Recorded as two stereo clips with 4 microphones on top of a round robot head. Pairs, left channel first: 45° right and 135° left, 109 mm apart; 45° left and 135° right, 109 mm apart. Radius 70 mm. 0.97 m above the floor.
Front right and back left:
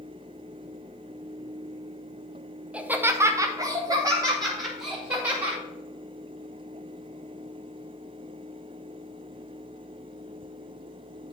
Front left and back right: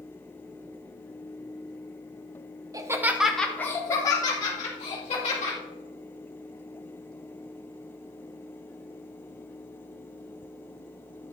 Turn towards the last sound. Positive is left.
turn(degrees=80)